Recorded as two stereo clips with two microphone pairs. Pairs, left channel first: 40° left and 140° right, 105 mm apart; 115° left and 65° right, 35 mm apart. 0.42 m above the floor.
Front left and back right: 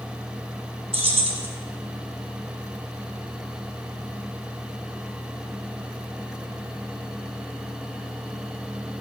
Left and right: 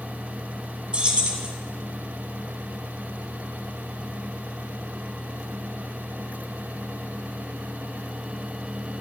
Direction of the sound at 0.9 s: 120° right.